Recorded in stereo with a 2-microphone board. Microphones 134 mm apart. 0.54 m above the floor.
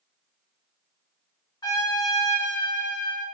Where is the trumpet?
30° left (ahead or behind), 1.0 m.